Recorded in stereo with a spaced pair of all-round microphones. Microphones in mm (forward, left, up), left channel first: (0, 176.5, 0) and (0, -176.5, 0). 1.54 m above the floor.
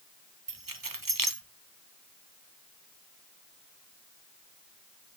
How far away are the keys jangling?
About 1.1 m.